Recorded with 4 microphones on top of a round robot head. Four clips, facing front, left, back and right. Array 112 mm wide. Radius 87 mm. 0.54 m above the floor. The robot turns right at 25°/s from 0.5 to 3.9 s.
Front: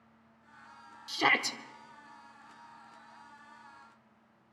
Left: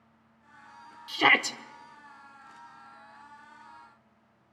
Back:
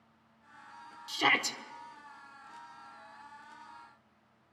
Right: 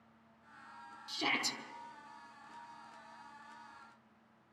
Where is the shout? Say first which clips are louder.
Left 13 dB, front 1 dB; 75° left, 1.3 m; by 1.6 s 85° left, 1.3 m.